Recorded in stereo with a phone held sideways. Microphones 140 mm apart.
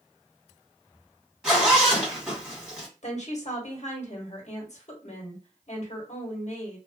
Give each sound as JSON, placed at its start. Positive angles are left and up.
{"t": 1.4, "sound": "a zipper", "side_deg": -5, "distance_m": 1.6}
{"t": 3.0, "sound": "a woman speaking", "side_deg": 60, "distance_m": 1.1}